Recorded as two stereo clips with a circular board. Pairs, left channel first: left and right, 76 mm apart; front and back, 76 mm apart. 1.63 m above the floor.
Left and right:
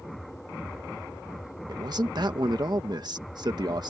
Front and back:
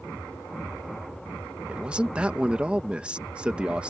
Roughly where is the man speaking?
Right.